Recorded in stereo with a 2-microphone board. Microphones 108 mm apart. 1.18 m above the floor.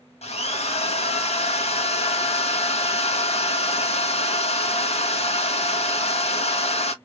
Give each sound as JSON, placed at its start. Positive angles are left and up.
{"t": 0.2, "sound": "a drill", "side_deg": 75, "distance_m": 0.9}